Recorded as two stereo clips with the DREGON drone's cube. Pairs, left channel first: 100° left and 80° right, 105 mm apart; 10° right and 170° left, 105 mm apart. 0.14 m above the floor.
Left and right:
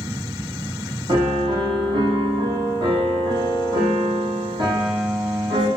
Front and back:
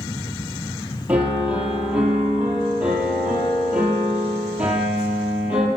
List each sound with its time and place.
1.1 s a piano: 115° right, 5.5 m